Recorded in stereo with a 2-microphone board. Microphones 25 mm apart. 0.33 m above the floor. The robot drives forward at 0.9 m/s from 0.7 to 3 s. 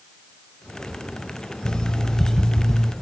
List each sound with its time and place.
1.6 s an alarm clock: 35° left (ahead or behind), 0.6 m; by 2.9 s 15° left (ahead or behind), 1.4 m